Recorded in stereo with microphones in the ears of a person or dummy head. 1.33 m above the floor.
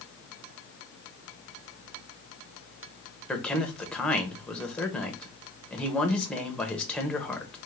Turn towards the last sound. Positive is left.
turn(degrees=5)  # may be behind; listen again after turning